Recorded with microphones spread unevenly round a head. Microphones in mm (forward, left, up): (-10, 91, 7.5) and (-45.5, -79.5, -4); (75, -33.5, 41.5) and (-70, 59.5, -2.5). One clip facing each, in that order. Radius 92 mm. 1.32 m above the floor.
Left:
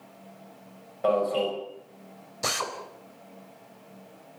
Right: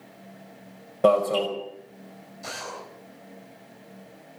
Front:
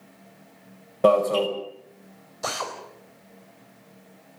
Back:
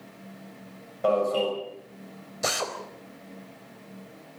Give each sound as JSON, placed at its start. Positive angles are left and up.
{"t": 1.0, "sound": "an alarm", "azimuth_deg": -60, "distance_m": 5.5}
{"t": 2.4, "sound": "a drill", "azimuth_deg": 80, "distance_m": 4.0}